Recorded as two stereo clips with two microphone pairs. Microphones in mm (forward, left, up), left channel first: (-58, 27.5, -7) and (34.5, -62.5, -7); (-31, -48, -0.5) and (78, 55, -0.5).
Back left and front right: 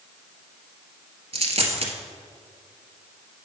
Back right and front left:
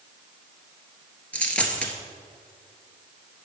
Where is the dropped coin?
55° right, 1.2 m.